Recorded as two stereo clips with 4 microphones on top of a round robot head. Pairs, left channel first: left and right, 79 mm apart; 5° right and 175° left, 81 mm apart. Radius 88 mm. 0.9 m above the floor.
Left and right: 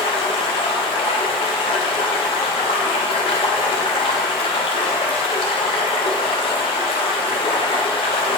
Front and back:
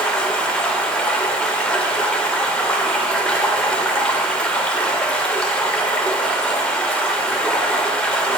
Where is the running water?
75° left, 0.8 m.